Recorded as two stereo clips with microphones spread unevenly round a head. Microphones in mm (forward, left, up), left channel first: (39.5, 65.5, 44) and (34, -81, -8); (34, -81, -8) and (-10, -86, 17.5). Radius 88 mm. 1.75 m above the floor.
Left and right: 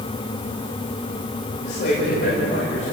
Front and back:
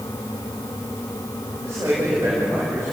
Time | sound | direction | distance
1.6 | a man speaking | 115° left | 8.5 m